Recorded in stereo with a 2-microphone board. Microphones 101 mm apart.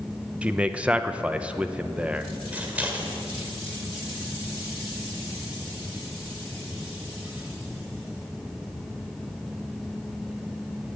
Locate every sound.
0.4 s a man speaking: 10° right (ahead or behind), 0.8 m
2.5 s scissors: 15° right (ahead or behind), 2 m